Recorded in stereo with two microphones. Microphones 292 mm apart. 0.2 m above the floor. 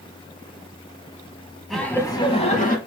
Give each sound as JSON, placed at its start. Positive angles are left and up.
{"t": 1.7, "sound": "laughter", "side_deg": 0, "distance_m": 1.0}